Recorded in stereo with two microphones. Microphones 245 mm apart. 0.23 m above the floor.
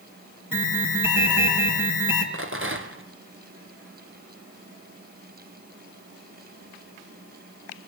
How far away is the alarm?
About 2.5 m.